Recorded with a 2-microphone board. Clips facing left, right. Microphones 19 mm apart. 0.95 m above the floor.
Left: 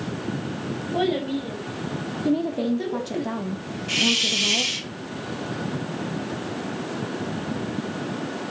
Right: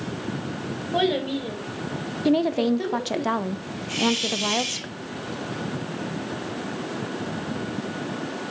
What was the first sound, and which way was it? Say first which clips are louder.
A child speaking: right 1 dB; 45° right (ahead or behind).